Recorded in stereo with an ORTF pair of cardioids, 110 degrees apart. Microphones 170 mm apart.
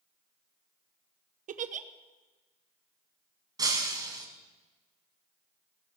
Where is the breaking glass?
25° right, 4 m.